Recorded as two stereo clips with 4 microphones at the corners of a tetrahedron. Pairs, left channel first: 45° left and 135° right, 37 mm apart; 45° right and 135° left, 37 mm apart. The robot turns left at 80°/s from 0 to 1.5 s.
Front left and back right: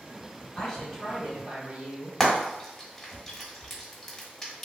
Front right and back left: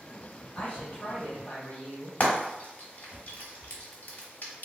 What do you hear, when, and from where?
0.6 s a woman speaking: 25° right, 1.9 m; by 2.1 s 100° right, 1.9 m
2.2 s frying: 35° right, 1.3 m